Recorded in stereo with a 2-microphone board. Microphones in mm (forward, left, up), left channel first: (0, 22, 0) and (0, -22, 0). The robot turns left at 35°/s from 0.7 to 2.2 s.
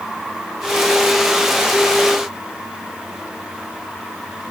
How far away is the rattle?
No rattle in this recording.